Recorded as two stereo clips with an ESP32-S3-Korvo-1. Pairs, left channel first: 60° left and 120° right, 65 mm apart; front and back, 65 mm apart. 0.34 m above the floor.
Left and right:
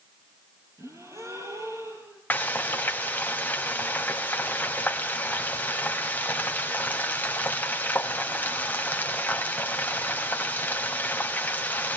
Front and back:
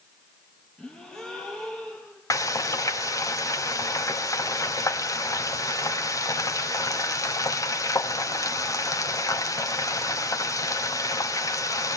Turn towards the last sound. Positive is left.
turn(degrees=0)